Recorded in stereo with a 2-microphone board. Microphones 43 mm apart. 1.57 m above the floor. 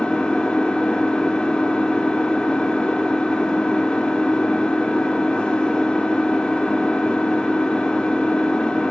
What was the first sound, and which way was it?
An engine running, 20° left (ahead or behind).